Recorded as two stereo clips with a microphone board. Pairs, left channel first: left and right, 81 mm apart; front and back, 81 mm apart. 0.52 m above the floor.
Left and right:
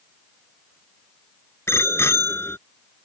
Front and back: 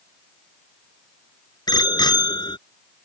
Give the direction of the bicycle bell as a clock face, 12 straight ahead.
11 o'clock.